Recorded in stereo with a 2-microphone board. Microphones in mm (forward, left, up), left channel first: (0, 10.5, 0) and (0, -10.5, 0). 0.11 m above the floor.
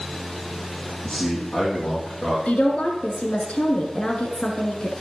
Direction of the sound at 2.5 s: 65° left (ahead or behind).